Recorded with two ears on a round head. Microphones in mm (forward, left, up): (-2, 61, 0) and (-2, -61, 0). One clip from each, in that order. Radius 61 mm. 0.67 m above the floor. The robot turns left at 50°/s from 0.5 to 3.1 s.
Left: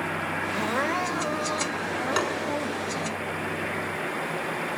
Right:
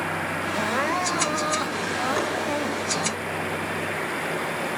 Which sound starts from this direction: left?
Tapping, at 2.2 s.